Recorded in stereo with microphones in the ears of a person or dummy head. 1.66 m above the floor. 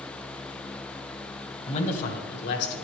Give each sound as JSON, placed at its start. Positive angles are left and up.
{"t": 1.7, "sound": "a man speaking", "side_deg": 40, "distance_m": 1.4}